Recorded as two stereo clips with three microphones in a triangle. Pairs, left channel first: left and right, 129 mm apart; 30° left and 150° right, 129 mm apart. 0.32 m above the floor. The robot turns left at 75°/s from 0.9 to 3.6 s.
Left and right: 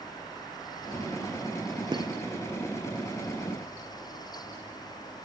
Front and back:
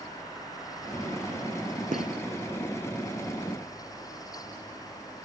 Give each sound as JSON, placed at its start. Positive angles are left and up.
{"t": 1.9, "sound": "a gunshot", "azimuth_deg": -145, "distance_m": 1.3}